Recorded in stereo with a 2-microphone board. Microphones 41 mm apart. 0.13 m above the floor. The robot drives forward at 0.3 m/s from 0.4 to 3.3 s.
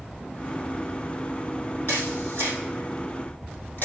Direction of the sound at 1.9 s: 55° left (ahead or behind).